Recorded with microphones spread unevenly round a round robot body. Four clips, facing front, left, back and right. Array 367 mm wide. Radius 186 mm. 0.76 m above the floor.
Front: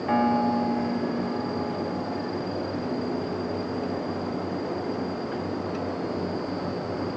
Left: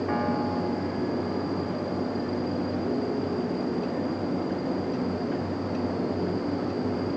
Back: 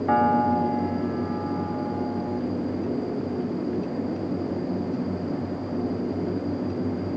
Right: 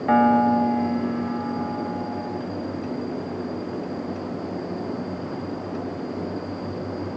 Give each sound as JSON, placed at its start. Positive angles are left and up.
{"t": 0.1, "sound": "a piano", "azimuth_deg": -95}